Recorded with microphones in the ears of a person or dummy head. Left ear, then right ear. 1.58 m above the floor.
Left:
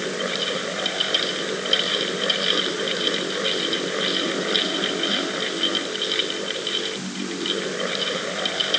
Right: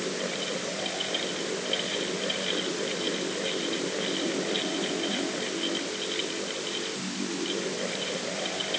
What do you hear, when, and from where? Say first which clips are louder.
0.0 s a fan: left 6 dB; 50° left (ahead or behind)